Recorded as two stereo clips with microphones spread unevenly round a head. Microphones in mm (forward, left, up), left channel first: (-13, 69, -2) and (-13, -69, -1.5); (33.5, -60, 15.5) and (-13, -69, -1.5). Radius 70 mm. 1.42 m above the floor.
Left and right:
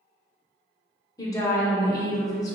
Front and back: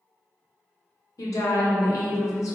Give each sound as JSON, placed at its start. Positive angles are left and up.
{"t": 1.2, "sound": "a woman speaking", "azimuth_deg": 20, "distance_m": 0.7}